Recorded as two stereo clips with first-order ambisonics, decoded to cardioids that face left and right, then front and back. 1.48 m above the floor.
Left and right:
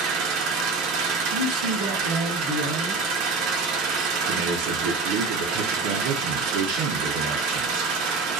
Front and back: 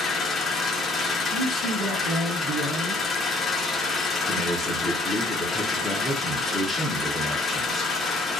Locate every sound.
0.0 s an engine running: 70° right, 0.7 m
1.3 s a man speaking: 90° right, 0.9 m
4.3 s a man speaking: 85° right, 0.6 m